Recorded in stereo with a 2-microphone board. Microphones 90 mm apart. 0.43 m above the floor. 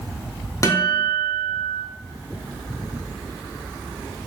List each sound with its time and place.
0.6 s a guitar: 35° left (ahead or behind), 0.8 m